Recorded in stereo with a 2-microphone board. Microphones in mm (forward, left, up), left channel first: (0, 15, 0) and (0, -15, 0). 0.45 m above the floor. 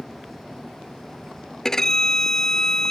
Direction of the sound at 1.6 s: 20° left (ahead or behind).